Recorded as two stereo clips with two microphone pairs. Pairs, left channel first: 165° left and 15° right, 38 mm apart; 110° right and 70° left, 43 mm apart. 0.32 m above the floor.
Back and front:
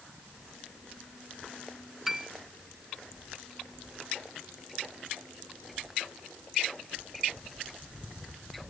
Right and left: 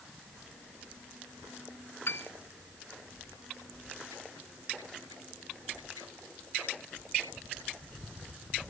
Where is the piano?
95° right.